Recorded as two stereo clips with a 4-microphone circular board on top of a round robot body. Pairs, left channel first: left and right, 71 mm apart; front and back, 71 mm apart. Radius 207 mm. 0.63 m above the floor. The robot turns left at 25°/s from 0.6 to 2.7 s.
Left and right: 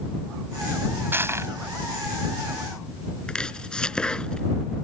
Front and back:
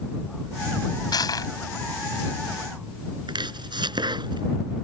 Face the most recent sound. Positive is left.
turn(degrees=170)